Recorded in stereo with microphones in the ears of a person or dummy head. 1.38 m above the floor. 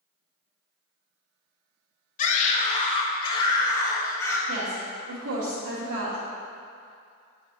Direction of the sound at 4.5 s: 85° right.